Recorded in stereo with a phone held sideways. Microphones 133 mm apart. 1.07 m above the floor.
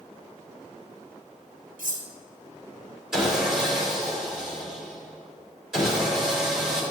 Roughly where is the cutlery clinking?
Right.